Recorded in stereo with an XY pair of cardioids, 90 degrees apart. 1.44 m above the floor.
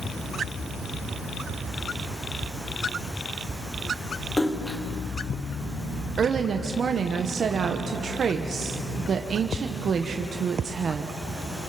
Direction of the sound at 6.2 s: 55° right.